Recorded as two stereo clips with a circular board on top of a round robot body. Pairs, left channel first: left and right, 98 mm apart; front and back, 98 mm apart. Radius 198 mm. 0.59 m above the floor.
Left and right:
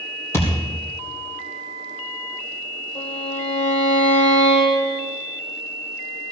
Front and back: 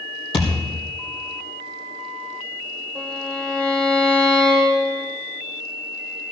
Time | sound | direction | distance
0.3 | a thud | 25° left | 4 m
3.0 | a violin | 80° left | 9 m